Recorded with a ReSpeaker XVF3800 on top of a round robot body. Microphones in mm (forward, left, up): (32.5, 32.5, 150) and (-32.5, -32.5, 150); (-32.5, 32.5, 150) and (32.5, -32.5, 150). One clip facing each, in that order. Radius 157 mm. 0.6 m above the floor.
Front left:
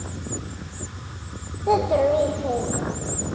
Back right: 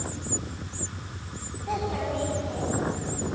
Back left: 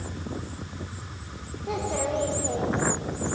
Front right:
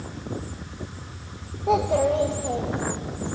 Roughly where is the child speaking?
Ahead.